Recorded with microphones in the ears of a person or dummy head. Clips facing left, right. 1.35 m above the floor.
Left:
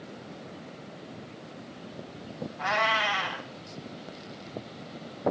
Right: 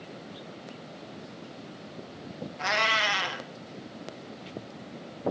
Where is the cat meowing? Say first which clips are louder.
Left 2 dB; 35° right (ahead or behind), 1.2 m.